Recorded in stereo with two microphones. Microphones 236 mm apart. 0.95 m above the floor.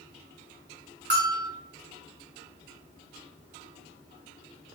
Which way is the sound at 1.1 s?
45° right (ahead or behind).